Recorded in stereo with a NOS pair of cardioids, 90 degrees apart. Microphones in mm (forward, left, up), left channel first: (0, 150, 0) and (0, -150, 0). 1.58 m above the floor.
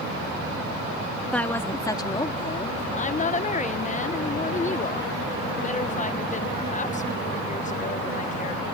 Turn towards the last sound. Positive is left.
turn(degrees=25)